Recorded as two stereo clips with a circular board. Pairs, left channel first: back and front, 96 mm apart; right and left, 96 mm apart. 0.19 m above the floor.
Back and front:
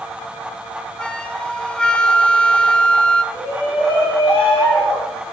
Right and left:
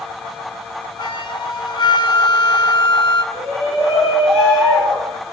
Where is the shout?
145° right, 3 m.